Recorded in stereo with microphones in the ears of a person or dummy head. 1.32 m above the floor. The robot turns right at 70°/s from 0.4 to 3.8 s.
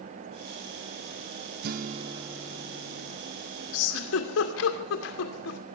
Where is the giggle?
80° left, 2.5 m; by 5.6 s 75° left (ahead or behind), 2.5 m.